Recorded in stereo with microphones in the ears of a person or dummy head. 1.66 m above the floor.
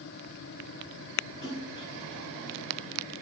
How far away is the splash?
About 1.7 m.